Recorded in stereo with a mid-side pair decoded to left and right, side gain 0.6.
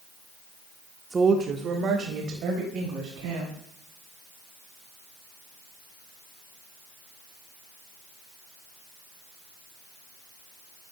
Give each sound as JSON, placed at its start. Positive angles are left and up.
{"t": 1.1, "sound": "a woman speaking", "azimuth_deg": -20, "distance_m": 0.6}